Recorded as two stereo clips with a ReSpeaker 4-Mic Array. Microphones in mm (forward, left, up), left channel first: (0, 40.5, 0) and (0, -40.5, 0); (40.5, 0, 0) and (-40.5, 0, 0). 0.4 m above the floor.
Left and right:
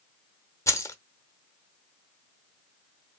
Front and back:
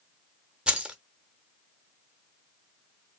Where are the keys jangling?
110° left, 0.7 m.